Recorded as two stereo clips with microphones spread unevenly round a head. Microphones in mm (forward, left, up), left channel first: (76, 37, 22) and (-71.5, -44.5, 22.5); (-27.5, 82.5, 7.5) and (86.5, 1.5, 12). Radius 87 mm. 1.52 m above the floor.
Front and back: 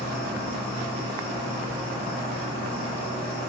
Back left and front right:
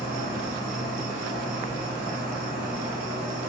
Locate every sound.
0.0 s an insect: 30° right, 1.5 m